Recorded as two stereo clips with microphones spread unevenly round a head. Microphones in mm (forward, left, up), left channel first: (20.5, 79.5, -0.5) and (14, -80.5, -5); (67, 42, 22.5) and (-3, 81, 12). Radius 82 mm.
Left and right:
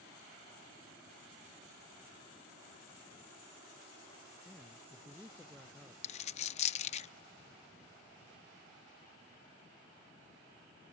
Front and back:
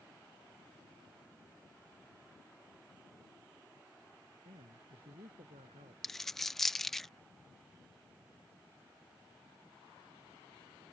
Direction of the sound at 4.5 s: Straight behind.